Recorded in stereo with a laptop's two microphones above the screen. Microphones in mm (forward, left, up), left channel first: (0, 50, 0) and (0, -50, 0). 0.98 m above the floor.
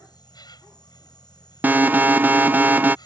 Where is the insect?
50° left (ahead or behind).